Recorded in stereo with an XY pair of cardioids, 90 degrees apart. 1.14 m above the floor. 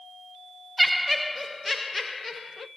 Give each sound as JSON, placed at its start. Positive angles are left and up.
{"t": 0.8, "sound": "laughter", "azimuth_deg": -20, "distance_m": 0.6}